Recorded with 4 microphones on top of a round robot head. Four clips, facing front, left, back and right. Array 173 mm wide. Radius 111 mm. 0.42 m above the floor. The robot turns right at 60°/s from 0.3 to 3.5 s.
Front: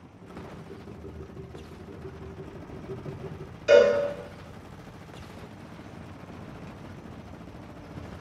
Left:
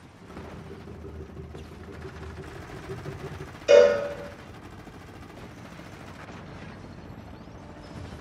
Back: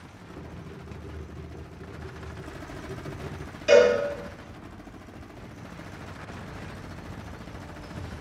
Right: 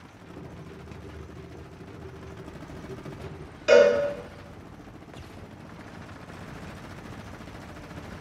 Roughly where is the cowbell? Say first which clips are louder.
Left 1 dB, even; right.